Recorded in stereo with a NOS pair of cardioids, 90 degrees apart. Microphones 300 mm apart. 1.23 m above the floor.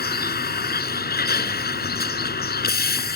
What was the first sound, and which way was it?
A vehicle, 35° left.